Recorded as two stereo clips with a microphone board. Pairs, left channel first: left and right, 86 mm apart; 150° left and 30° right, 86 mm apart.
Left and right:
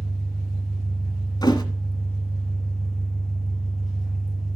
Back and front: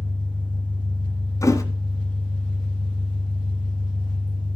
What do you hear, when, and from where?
0.0 s an engine running: straight behind, 6.5 m
1.4 s a thud: 110° left, 1.6 m